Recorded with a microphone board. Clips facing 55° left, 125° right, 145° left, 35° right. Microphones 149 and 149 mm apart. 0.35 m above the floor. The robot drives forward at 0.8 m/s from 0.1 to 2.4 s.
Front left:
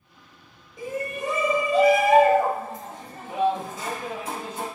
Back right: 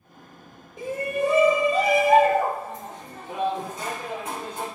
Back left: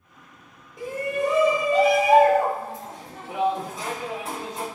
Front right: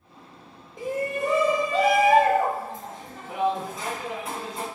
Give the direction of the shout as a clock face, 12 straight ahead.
3 o'clock.